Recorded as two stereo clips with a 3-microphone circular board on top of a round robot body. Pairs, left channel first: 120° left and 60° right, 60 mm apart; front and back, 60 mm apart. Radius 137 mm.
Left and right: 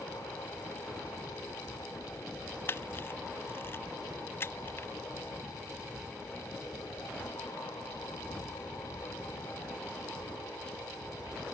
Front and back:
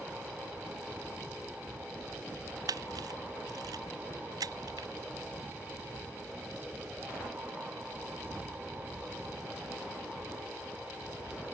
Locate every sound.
2.7 s a camera shutter: 170° left